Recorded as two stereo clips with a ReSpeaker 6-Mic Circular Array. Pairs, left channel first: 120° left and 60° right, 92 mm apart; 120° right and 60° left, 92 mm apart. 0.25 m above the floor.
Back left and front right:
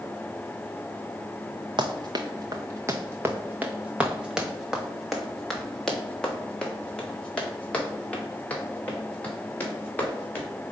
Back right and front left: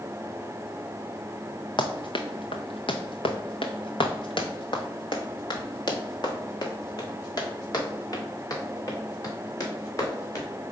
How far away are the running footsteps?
About 1.2 m.